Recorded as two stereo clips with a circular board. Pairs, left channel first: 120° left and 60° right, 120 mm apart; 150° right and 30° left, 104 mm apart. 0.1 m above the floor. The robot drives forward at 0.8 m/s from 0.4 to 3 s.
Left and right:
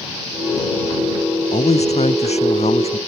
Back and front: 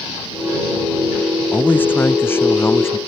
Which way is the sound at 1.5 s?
140° left.